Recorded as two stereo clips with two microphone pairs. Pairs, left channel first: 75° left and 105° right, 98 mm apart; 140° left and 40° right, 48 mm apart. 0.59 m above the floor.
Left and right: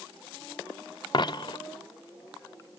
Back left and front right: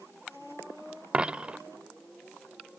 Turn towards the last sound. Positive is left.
turn(degrees=35)